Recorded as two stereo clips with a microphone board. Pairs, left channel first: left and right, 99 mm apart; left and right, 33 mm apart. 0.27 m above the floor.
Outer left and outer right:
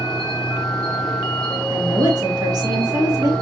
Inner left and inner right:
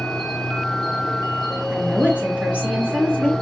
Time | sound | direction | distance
0.0 | an insect | 5° left (ahead or behind) | 1.5 m
1.7 | a woman speaking | 40° right (ahead or behind) | 4 m